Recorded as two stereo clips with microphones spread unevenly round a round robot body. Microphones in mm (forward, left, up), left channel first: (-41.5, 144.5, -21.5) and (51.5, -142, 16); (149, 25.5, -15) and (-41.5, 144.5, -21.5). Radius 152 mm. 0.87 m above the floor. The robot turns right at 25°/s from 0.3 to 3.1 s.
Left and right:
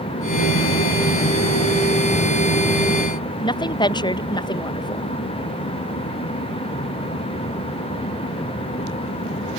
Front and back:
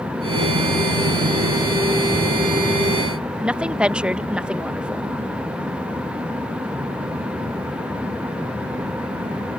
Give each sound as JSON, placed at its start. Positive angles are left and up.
{"t": 3.4, "sound": "a woman speaking", "azimuth_deg": 70}